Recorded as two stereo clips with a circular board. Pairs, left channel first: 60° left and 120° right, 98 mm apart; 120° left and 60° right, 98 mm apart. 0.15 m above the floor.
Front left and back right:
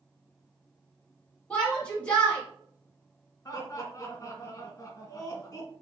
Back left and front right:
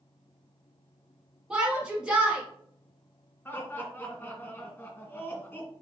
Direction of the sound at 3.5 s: 65° left.